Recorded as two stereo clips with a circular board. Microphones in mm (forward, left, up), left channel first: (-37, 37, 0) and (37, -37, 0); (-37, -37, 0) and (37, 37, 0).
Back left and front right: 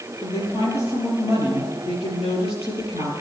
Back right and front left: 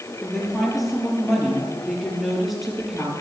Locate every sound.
0.2 s a woman speaking: 135° left, 6.5 m